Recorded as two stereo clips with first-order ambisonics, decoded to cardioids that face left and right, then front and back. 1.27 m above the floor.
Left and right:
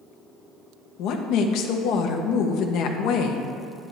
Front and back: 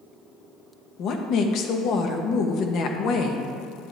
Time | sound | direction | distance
1.0 | a woman speaking | 50° left | 1.1 m